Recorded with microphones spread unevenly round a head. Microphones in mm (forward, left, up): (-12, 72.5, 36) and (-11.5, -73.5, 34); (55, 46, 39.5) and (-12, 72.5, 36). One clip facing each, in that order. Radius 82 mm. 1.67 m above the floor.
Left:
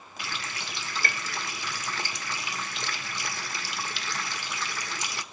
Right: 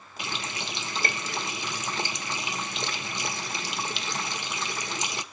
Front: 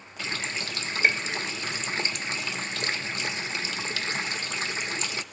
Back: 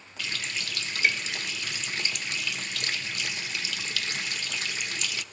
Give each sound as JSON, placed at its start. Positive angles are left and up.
{"t": 0.2, "sound": "a running tap", "azimuth_deg": -35, "distance_m": 0.7}